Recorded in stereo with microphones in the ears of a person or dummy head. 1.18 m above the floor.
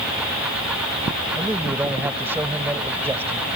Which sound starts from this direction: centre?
A man speaking, at 1.4 s.